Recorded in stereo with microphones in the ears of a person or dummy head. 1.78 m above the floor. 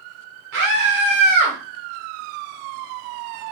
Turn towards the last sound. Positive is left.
turn(degrees=-20)  # may be behind; listen again after turning